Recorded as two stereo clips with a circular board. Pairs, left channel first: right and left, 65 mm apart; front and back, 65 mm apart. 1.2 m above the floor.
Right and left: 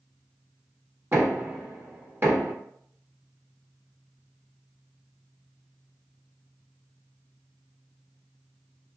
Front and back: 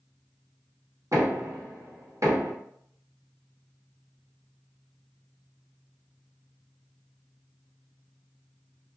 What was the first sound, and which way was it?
Knocking, 145° left.